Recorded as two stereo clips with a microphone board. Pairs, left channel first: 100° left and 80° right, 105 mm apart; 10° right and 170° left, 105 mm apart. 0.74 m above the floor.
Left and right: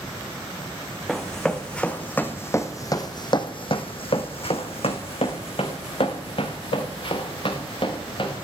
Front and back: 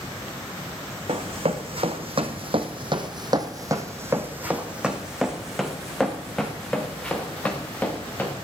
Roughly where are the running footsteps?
Behind.